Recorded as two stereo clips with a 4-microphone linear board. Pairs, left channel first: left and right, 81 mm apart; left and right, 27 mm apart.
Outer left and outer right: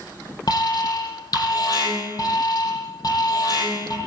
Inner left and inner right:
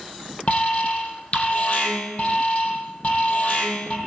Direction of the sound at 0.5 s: 45° left (ahead or behind).